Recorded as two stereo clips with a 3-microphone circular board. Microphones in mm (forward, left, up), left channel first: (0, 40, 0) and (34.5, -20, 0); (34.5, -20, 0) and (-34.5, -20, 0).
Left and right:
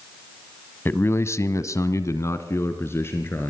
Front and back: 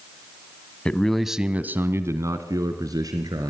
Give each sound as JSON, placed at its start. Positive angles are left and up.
{"t": 0.8, "sound": "a man speaking", "azimuth_deg": 70, "distance_m": 1.5}